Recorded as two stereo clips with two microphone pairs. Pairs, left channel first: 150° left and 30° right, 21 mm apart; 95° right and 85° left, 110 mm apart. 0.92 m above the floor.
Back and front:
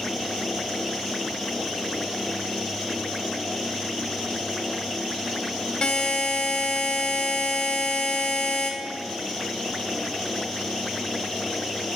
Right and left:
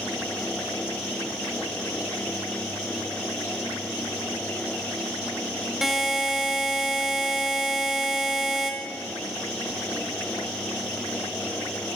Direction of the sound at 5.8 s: 170° left.